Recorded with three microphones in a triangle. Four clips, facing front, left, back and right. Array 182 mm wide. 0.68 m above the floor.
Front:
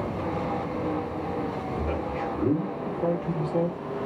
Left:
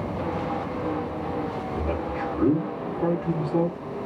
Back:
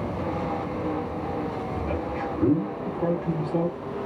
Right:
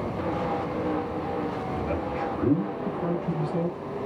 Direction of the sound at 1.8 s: 115° left.